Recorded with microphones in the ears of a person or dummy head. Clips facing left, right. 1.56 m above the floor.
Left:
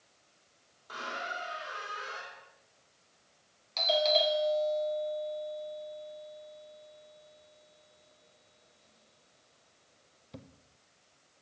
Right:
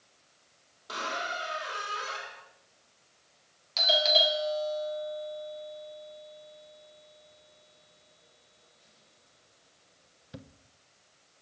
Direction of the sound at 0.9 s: 50° right (ahead or behind).